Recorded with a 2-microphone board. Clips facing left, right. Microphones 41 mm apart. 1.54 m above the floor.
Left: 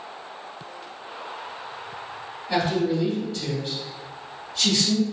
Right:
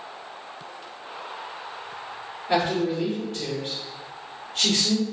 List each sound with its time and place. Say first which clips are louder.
2.5 s a man speaking: even; 60° right (ahead or behind), 1.2 m